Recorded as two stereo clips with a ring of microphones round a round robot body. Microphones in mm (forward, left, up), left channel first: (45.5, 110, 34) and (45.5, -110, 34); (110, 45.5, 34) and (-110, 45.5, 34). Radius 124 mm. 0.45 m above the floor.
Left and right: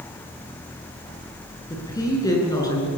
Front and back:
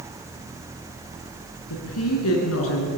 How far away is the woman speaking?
About 6.5 m.